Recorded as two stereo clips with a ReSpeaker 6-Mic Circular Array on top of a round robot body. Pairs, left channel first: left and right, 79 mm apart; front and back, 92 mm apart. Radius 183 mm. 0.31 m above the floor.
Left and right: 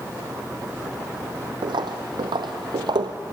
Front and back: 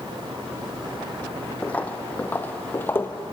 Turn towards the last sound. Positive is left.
turn(degrees=-65)